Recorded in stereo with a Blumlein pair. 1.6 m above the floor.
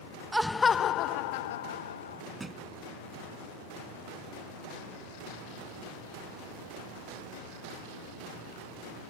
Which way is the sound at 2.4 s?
5° right.